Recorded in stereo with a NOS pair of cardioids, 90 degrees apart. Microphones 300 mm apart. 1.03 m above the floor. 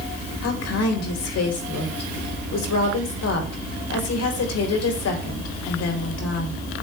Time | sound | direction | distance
0.4 | a woman speaking | 65° left | 4 m